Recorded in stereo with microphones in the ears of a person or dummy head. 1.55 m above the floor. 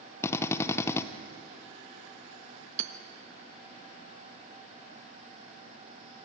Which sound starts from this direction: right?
Hammering, at 2.8 s.